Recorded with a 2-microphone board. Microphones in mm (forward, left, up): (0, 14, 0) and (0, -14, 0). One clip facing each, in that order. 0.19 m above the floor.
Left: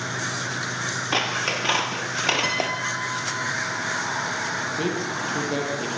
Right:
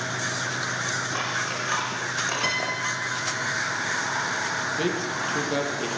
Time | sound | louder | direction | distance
1.1 | scissors | left 4 dB | 60° left (ahead or behind) | 2.5 m
2.4 | a piano | left 1 dB | centre (ahead or behind) | 1.1 m
4.8 | a man speaking | even | 5° right (ahead or behind) | 5 m